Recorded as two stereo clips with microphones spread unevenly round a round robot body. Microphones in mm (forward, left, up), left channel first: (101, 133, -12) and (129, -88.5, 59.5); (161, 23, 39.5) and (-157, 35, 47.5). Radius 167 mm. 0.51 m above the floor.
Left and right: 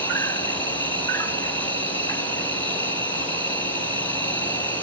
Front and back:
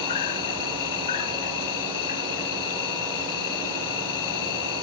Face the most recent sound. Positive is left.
turn(degrees=20)